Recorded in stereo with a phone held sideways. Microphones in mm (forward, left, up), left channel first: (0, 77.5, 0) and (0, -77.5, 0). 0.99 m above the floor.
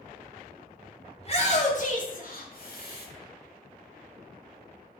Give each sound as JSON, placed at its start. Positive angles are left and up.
{"t": 1.2, "sound": "a shout", "side_deg": 40, "distance_m": 2.0}